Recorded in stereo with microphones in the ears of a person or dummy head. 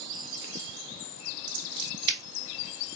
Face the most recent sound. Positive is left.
turn(degrees=-25)  # may be behind; listen again after turning